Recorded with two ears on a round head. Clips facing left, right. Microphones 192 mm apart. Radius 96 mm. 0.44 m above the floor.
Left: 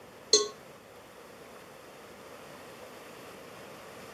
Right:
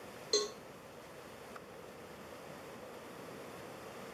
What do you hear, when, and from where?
0.3 s a cowbell: 55° left (ahead or behind), 0.5 m